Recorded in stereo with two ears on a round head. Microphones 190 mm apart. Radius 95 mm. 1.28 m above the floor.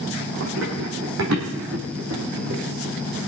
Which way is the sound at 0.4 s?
65° right (ahead or behind).